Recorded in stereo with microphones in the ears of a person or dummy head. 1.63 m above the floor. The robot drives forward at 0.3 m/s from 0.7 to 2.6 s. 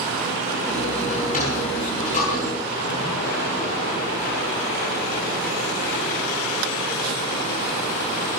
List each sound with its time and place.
1.1 s a sliding door: 45° left (ahead or behind), 6.5 m